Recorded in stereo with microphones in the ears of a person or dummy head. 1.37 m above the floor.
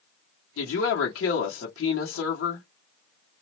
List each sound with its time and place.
0.6 s a woman speaking: 80° left, 1.1 m